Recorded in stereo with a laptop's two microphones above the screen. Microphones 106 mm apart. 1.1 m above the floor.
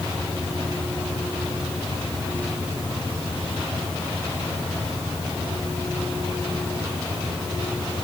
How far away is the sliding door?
No sliding door in this recording.